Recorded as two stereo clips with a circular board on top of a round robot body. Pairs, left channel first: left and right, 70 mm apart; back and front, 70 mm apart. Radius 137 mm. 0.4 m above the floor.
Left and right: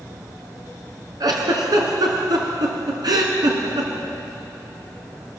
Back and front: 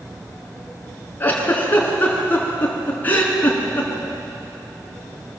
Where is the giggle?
115° right, 3.5 m.